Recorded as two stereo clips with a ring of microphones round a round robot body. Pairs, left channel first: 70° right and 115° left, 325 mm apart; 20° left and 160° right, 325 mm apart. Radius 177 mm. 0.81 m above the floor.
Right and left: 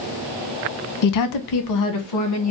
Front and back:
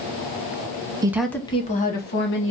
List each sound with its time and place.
1.0 s a woman speaking: 80° right, 0.7 m; by 2.5 s 30° right, 1.4 m